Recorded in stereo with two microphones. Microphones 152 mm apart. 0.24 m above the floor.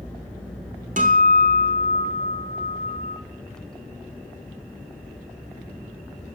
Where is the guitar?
55° right (ahead or behind), 0.7 m.